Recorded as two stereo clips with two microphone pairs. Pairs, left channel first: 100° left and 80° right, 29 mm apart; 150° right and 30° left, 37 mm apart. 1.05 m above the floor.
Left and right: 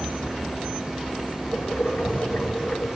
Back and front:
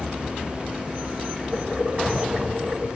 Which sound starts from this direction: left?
Boiling, at 1.5 s.